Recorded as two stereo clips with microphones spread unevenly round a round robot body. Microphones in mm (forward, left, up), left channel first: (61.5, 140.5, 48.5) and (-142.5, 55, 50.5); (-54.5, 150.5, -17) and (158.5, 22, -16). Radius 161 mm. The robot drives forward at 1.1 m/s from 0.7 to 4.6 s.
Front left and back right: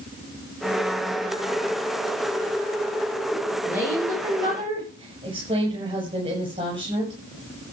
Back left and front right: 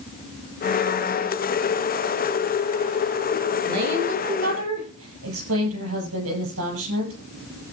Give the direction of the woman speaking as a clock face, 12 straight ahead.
2 o'clock.